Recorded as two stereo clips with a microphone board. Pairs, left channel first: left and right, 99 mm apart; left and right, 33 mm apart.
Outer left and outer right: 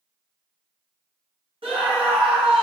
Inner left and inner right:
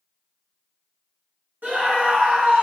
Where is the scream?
65° right (ahead or behind), 1.5 m.